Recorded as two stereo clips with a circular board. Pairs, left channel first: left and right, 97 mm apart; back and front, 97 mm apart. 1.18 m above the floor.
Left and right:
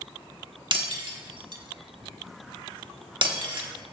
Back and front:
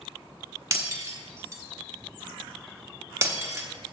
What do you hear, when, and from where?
0.7 s breaking glass: 60° right, 1.2 m